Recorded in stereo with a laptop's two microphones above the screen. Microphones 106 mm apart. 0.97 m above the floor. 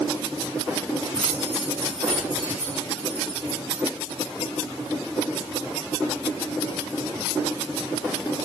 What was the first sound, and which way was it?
Keys jangling, 40° left (ahead or behind).